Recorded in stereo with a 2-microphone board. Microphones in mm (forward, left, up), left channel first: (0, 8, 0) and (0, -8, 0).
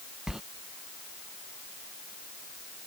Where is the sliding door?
35° right (ahead or behind).